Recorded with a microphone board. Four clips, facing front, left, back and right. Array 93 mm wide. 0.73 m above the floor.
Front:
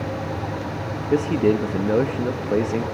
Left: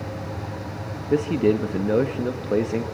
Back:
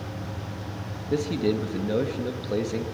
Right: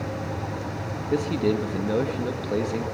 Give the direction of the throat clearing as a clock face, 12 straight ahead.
I don't hear throat clearing.